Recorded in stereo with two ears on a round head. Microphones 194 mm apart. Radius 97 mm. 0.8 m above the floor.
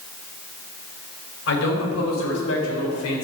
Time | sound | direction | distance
1.5 | a man speaking | 65° left (ahead or behind) | 4.5 m